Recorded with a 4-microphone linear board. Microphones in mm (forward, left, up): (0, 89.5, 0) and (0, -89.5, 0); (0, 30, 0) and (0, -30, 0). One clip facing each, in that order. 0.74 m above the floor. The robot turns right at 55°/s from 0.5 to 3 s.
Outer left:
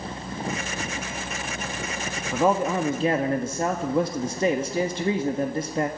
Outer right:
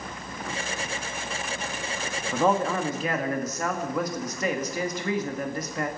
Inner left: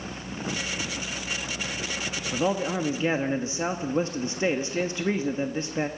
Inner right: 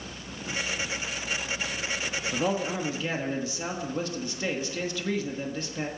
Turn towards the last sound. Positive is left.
turn(degrees=45)